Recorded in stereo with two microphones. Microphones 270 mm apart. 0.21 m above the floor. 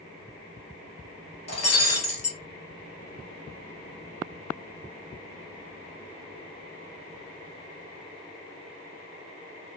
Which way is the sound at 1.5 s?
65° left (ahead or behind).